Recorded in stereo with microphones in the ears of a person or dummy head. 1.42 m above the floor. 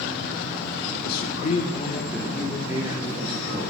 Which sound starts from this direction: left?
A man speaking, at 1.1 s.